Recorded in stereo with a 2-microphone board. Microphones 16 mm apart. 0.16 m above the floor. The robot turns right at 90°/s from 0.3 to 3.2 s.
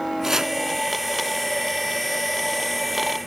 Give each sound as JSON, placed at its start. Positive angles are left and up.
{"t": 0.2, "sound": "chopping", "side_deg": -30, "distance_m": 0.7}